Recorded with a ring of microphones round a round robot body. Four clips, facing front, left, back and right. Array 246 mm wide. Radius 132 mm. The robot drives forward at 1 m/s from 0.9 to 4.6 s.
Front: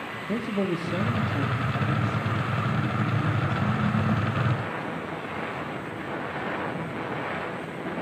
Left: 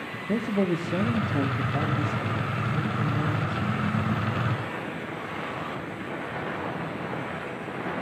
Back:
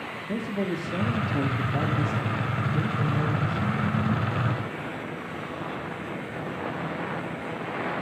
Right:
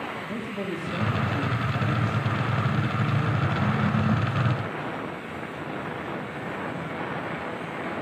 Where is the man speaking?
75° left, 1.0 m; by 3.7 s 170° left, 3 m.